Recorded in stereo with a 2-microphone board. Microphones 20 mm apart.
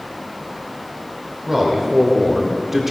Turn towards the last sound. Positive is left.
turn(degrees=-15)  # may be behind; listen again after turning